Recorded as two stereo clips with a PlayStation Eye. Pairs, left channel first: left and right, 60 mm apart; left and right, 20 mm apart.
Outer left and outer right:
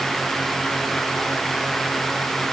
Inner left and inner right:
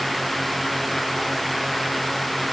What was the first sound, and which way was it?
Only background noise.